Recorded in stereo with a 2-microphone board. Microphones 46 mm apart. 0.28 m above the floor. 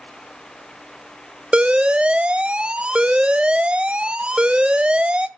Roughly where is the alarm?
Right.